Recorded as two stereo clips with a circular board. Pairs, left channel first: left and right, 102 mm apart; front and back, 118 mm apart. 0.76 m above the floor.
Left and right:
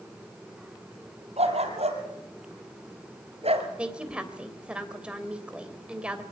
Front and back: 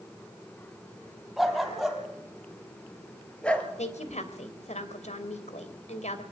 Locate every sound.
1.4 s a dog barking: 90° right, 5 m; by 3.7 s 80° right, 3 m
3.8 s a woman speaking: 10° right, 3 m